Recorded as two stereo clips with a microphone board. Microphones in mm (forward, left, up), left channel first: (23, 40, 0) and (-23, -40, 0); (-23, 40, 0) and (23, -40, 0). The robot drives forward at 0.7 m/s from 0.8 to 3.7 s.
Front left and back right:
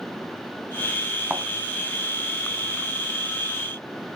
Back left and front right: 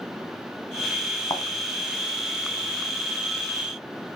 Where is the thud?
160° left, 3 m.